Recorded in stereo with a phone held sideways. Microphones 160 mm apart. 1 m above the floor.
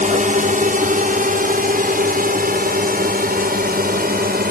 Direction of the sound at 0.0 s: 55° right (ahead or behind).